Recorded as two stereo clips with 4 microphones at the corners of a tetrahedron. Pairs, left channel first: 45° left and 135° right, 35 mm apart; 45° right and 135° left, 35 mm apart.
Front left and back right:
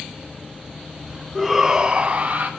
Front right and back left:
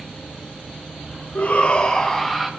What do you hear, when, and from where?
1.4 s a shout: 45° right, 0.8 m; by 2.5 s 135° right, 1.0 m